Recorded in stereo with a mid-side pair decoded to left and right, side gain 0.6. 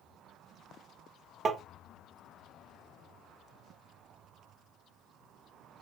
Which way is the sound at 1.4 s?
35° right.